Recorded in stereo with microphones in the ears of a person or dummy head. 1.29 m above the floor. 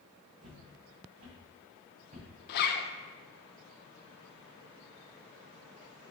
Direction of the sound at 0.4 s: 50° right (ahead or behind).